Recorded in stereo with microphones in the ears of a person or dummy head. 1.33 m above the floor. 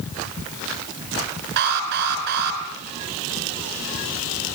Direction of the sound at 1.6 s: 60° right (ahead or behind).